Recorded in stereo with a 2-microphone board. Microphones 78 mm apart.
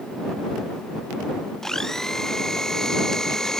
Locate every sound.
1.6 s a blender: 5° left (ahead or behind)